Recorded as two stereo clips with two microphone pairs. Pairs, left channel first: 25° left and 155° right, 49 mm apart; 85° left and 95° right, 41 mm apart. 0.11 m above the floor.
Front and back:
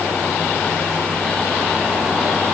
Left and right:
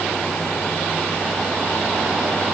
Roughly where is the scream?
I don't hear a scream.